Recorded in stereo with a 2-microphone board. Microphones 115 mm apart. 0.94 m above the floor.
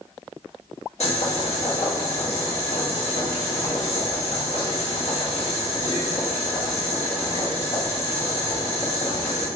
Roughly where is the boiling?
Left.